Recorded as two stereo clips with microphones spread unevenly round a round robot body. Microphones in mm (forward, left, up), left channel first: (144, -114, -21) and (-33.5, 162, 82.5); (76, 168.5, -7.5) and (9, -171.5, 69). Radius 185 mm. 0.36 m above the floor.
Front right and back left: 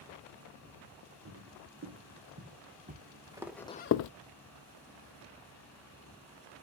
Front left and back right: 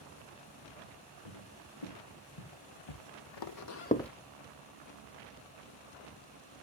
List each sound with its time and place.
1.2 s footsteps: 75° left, 3 m; by 4.1 s 25° right, 0.6 m